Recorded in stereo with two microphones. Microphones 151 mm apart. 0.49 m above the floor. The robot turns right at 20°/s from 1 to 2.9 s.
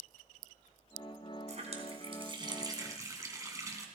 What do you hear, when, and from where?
1.5 s a running tap: 50° right (ahead or behind), 3 m; by 3.9 s 20° right (ahead or behind), 3 m